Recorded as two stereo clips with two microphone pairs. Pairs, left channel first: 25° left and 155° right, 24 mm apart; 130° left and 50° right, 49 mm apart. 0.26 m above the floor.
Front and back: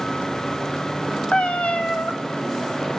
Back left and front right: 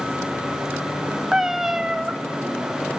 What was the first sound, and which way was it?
A cat meowing, 35° left.